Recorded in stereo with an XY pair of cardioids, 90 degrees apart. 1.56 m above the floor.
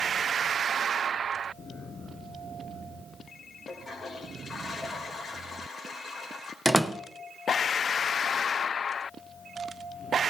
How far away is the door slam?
About 1.0 m.